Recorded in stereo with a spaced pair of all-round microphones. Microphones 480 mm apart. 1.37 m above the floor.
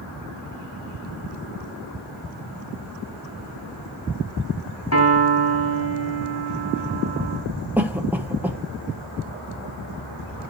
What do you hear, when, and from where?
4.9 s a piano: 35° left (ahead or behind), 2 m
7.8 s a cough: 5° right (ahead or behind), 0.7 m